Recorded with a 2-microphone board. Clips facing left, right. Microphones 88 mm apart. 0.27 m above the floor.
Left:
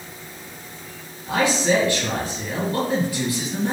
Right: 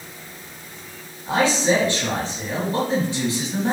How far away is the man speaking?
About 1.8 m.